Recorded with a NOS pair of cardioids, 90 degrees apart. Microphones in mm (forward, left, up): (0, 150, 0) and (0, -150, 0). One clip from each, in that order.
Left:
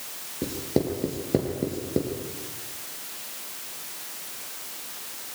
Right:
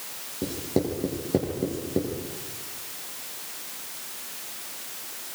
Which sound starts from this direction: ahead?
Writing, at 0.4 s.